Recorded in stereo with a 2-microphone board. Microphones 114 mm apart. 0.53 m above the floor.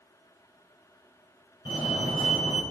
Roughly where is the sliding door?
I don't hear a sliding door.